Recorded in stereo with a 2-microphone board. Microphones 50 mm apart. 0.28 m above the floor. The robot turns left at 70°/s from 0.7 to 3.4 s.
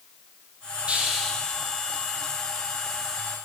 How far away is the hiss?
About 4.5 m.